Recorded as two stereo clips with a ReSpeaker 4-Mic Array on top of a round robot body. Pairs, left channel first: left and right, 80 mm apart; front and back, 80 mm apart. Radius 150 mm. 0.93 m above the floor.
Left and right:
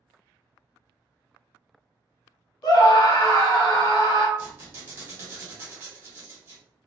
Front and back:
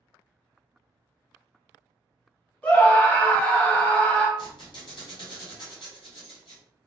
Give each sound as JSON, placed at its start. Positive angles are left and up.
{"t": 2.6, "sound": "a scream", "azimuth_deg": 70, "distance_m": 1.2}
{"t": 4.4, "sound": "a squeak", "azimuth_deg": -25, "distance_m": 1.5}